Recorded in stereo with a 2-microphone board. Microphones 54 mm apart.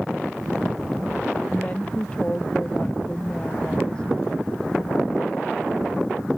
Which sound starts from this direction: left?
A woman speaking, at 1.5 s.